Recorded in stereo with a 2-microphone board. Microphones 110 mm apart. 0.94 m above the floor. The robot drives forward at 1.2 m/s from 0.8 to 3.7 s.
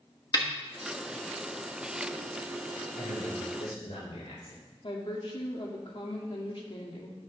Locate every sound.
0.3 s a snare drum: 35° left (ahead or behind), 1.1 m
3.0 s a man speaking: 60° left (ahead or behind), 4.5 m; by 4.7 s 70° left (ahead or behind), 4 m
4.8 s a woman speaking: 50° left (ahead or behind), 1.9 m